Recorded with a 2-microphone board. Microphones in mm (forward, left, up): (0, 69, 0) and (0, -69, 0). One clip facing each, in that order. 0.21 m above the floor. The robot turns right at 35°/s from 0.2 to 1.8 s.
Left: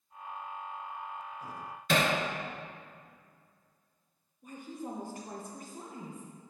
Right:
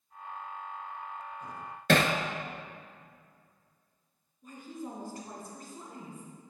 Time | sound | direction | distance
1.9 | hammering | 80° right | 0.8 m
4.4 | a woman speaking | 20° left (ahead or behind) | 1.9 m